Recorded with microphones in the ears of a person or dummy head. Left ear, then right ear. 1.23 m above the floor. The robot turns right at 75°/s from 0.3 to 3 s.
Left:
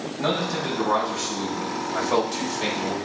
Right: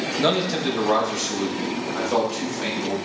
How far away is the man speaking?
About 5 m.